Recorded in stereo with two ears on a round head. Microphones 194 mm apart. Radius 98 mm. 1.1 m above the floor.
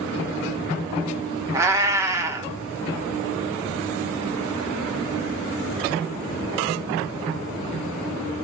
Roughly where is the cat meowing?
Centre.